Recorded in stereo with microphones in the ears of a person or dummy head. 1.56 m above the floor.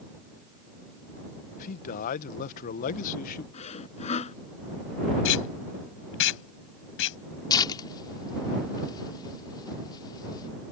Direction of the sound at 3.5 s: 30° left (ahead or behind).